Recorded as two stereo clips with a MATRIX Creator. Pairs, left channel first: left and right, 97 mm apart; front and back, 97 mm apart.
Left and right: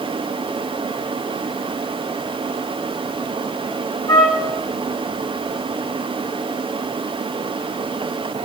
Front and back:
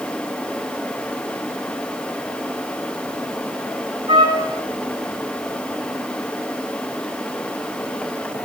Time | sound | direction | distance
4.1 | a trumpet | 140° left | 1.4 m